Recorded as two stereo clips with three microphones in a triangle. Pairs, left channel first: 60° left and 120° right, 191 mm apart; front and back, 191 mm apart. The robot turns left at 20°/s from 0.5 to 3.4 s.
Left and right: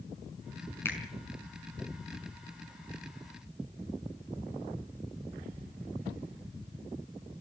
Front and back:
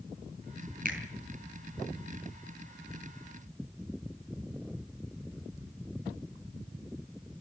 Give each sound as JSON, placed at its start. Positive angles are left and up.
{"t": 0.8, "sound": "a finger snap", "azimuth_deg": 140, "distance_m": 5.0}